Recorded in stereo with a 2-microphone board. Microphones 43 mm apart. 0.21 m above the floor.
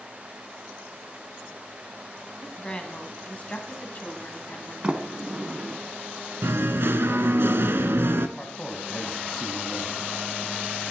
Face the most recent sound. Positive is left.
turn(degrees=0)  # may be behind; listen again after turning